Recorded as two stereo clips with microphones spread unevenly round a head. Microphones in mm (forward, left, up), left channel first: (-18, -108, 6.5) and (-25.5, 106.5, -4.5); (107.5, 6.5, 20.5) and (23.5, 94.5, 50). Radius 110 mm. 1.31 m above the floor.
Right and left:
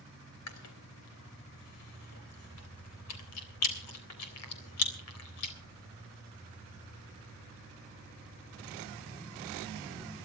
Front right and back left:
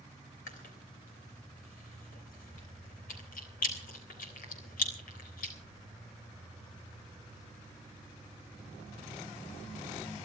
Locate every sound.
0.5 s chewing: 70° right, 3.5 m